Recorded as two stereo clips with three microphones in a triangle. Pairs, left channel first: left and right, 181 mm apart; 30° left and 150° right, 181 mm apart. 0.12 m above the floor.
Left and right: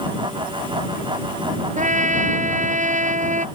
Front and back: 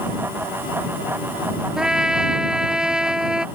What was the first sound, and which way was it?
A trumpet, 65° right.